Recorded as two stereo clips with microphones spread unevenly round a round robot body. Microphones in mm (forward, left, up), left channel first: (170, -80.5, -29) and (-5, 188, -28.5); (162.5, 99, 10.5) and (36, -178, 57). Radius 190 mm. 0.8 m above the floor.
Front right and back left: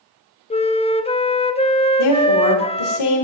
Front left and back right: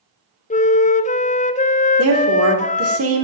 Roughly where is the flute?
Ahead.